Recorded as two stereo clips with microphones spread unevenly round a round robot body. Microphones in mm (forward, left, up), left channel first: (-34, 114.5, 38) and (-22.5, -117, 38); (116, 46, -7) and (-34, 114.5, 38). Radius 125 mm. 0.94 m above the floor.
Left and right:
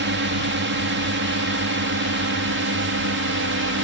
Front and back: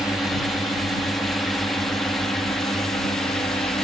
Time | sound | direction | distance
0.0 | a drone | 105° right | ?